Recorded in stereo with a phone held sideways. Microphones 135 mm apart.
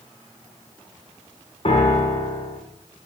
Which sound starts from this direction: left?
A piano, at 1.6 s.